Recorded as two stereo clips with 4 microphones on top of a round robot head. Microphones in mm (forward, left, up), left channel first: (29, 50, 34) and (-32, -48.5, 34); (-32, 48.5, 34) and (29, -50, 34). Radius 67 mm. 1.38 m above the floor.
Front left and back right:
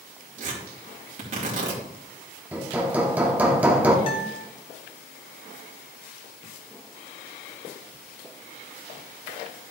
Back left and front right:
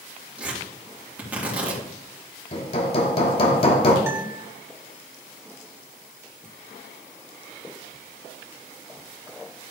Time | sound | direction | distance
0.4 | tearing paper | 135° right | 3.5 m
2.5 | hammering | 160° left | 1.3 m
4.1 | a guitar | 15° left | 1.3 m